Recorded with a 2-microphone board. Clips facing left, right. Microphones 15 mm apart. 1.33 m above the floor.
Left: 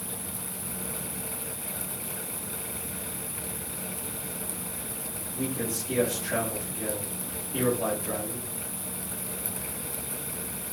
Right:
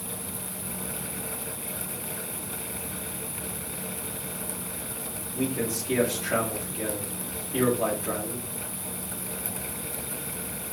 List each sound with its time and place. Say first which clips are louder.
5.3 s a man speaking: right 3 dB; 85° right, 2.5 m